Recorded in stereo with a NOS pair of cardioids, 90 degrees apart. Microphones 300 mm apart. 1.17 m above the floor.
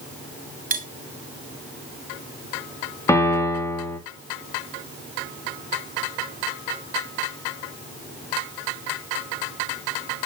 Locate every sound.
0.7 s cutlery clinking: 30° right, 1.5 m
3.1 s a piano: 10° left, 2 m